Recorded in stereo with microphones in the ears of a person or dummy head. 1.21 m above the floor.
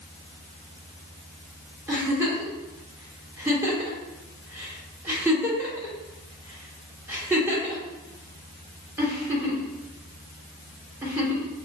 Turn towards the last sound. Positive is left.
turn(degrees=-15)  # may be behind; listen again after turning